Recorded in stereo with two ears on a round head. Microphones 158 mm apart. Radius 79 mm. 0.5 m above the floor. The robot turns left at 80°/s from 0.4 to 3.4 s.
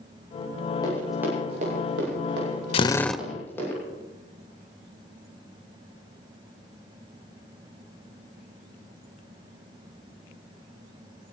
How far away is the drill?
About 0.5 m.